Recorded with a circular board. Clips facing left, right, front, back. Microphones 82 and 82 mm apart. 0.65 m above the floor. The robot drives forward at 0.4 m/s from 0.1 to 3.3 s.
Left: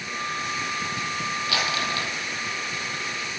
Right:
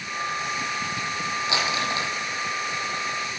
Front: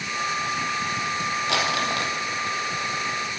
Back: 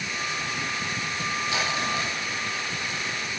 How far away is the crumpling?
About 8 m.